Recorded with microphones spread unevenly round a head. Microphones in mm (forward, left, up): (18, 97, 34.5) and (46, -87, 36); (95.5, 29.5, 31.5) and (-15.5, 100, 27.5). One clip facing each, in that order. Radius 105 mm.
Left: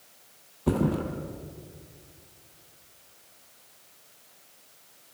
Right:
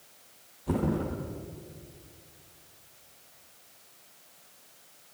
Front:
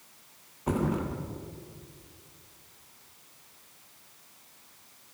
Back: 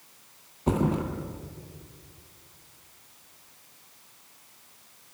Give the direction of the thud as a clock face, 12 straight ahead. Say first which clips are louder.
Left 3 dB, back 3 dB; 9 o'clock.